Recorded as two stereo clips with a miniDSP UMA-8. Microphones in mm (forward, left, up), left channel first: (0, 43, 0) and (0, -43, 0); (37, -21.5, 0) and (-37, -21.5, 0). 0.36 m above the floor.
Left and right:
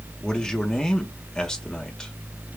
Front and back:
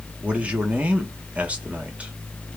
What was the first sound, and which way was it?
A man speaking, 155° left.